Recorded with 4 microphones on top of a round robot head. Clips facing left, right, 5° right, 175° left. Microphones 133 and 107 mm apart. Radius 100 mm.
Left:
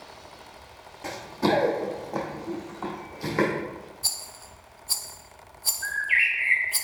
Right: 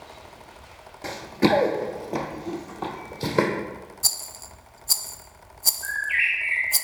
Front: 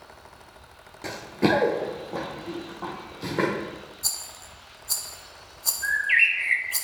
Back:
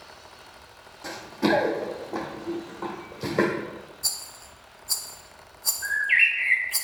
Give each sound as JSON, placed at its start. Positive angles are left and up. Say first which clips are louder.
{"t": 1.0, "sound": "running footsteps", "louder": "right 4 dB, front 1 dB", "azimuth_deg": -30, "distance_m": 0.7}
{"t": 4.0, "sound": "a rattle", "louder": "right 2 dB, front 1 dB", "azimuth_deg": -80, "distance_m": 0.5}
{"t": 5.8, "sound": "a bird", "louder": "left 1 dB, front 1 dB", "azimuth_deg": 45, "distance_m": 1.1}